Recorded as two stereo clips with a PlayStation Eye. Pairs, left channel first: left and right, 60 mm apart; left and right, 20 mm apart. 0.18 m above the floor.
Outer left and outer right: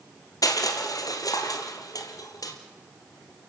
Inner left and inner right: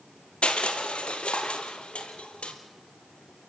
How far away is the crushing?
About 3 m.